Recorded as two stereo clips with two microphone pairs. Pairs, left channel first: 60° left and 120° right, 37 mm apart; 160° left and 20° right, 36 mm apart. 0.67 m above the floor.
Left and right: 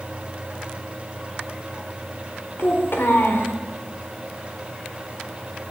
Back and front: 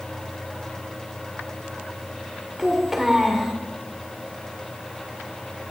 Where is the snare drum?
I don't hear a snare drum.